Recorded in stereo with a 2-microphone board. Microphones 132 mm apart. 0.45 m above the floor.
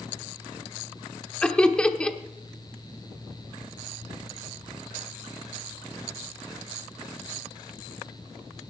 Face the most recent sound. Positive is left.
turn(degrees=5)  # may be behind; listen again after turning